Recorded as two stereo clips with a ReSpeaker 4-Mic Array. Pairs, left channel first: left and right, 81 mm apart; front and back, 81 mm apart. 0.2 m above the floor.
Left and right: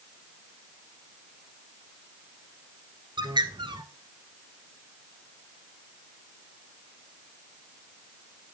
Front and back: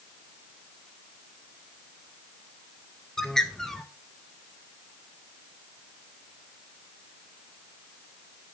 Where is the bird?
85° right, 1.2 m.